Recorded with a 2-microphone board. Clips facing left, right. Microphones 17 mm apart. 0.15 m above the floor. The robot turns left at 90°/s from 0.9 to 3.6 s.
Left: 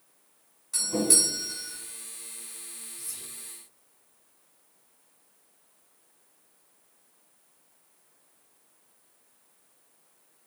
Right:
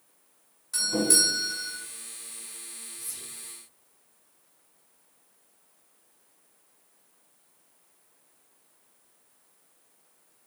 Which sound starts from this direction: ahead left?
Whispering, at 3.0 s.